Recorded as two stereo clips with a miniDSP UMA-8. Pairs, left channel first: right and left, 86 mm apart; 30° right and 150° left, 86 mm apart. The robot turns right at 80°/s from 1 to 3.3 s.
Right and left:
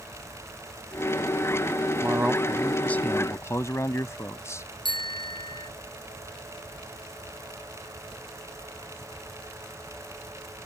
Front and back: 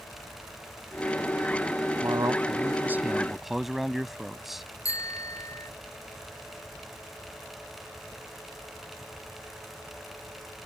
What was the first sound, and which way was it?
A man speaking, 135° left.